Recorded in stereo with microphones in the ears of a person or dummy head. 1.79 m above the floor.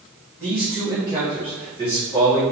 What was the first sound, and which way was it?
A man speaking, 10° left (ahead or behind).